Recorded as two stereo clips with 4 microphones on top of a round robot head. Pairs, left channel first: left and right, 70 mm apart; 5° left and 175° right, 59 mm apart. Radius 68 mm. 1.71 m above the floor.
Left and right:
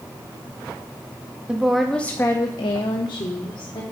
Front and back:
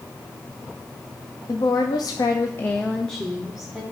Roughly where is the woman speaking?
Ahead.